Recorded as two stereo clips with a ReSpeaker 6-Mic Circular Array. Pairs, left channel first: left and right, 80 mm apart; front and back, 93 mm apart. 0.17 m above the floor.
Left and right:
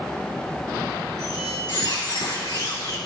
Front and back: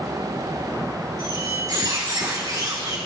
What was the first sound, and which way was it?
A squeak, 125° left.